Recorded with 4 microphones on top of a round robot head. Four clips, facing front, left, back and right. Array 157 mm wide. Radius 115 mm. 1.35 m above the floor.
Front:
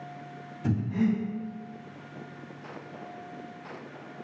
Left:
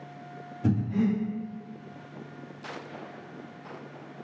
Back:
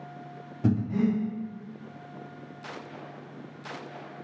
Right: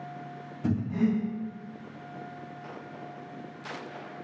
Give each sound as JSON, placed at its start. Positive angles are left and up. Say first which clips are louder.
{"t": 0.6, "sound": "breathing", "louder": "left 1 dB, back 2 dB", "azimuth_deg": 175, "distance_m": 1.0}